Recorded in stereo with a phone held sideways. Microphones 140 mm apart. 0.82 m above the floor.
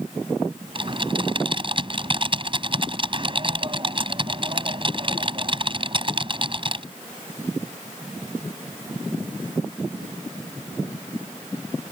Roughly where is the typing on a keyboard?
Right.